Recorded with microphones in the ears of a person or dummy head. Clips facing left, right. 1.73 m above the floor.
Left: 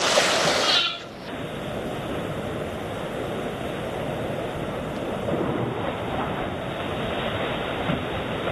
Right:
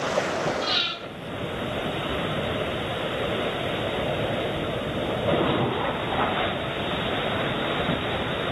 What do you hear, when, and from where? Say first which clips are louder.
0.6 s breathing: left 3 dB; centre (ahead or behind), 4 m